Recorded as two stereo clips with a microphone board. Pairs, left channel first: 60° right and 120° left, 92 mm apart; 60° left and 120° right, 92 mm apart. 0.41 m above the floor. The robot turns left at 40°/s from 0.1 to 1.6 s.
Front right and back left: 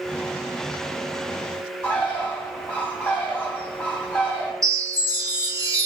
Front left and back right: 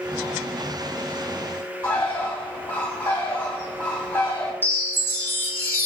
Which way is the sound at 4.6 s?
110° left.